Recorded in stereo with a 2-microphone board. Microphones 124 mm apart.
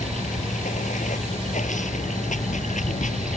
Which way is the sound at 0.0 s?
85° left.